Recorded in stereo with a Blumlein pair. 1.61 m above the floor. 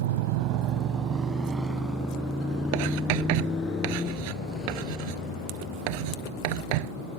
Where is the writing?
45° right.